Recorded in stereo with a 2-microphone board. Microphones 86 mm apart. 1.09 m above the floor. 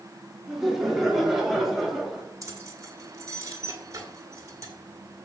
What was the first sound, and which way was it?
Laughter, 5° right (ahead or behind).